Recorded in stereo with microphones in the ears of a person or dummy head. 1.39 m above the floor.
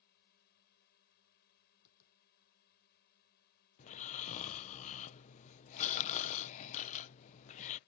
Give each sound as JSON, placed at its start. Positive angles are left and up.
{"t": 0.0, "sound": "a drone", "side_deg": 60}
{"t": 1.9, "sound": "tapping", "side_deg": 65}
{"t": 3.8, "sound": "snoring", "side_deg": 40}